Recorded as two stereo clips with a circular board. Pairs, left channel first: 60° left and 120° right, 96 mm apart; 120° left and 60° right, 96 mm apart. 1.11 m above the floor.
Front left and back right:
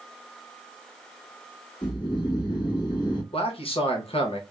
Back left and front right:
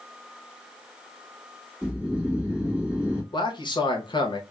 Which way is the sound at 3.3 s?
80° left.